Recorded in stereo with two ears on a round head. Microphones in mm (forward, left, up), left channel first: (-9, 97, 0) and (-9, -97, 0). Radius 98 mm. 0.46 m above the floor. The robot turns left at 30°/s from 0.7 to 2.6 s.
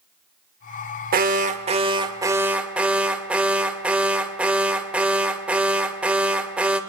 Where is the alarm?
130° right, 0.9 m; by 6.8 s 175° right, 0.9 m.